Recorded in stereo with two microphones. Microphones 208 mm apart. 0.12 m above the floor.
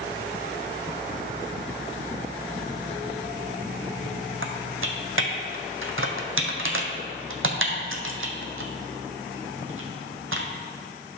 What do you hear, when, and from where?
4.4 s typing on a keyboard: 80° right, 1.0 m